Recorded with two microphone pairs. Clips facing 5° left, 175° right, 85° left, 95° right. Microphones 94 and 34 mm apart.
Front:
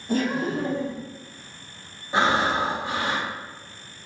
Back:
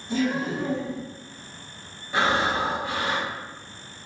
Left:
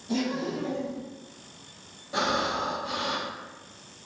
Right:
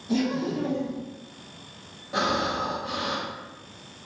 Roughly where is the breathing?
Ahead right.